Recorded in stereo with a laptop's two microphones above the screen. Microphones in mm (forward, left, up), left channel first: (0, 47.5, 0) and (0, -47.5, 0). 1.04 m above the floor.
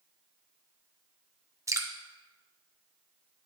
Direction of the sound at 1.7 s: 35° right (ahead or behind).